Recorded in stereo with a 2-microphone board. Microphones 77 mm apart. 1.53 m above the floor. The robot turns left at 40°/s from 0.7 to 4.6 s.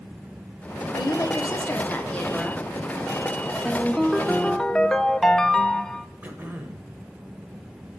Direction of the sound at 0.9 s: 65° left.